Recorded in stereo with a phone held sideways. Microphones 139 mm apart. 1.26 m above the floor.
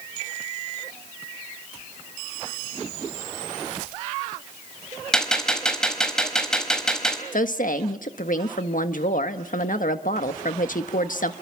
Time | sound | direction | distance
5.1 | a gunshot | 5° left (ahead or behind) | 4 m
7.3 | a woman speaking | 75° left (ahead or behind) | 1.4 m